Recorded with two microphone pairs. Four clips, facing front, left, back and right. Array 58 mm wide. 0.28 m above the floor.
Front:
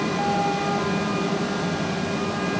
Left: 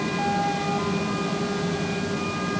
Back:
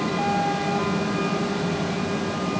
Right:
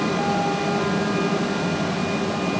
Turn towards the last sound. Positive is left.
No sound to turn to.